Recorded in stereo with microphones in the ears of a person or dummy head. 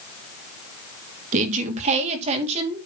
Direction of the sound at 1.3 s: 45° right (ahead or behind).